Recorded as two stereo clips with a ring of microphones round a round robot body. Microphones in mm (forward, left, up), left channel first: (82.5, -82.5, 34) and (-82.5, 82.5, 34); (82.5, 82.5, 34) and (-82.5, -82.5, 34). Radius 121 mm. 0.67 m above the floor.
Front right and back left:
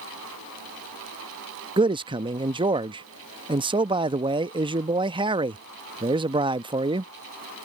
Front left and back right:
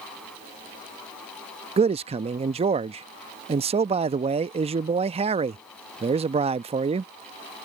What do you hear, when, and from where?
1.8 s a man speaking: 175° right